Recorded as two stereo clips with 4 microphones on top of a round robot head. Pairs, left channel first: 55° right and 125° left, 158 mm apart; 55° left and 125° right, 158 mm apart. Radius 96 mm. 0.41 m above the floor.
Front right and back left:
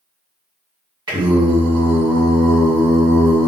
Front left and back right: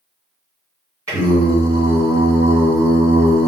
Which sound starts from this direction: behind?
Singing, at 1.1 s.